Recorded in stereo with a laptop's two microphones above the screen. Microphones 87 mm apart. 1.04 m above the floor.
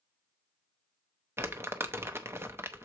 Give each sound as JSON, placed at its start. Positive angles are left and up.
{"t": 1.4, "sound": "crumpling", "side_deg": -30, "distance_m": 0.6}